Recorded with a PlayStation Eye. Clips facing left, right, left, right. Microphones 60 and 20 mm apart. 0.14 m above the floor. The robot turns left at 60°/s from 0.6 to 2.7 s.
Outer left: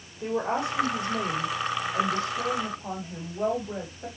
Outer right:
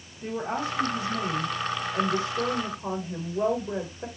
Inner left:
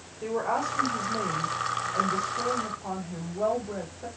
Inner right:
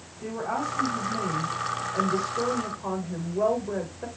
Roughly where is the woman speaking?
Left.